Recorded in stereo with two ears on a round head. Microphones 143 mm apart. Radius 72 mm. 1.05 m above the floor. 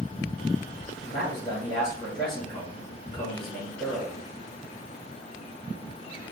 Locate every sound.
1.1 s a man speaking: 35° left (ahead or behind), 1.0 m